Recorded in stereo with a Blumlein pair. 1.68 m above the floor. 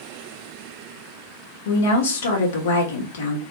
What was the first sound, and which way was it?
A woman speaking, 60° left.